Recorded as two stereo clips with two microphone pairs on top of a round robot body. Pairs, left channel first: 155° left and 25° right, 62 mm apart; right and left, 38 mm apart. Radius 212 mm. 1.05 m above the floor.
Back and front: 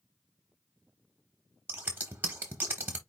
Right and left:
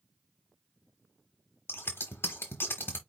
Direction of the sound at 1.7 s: 80° right.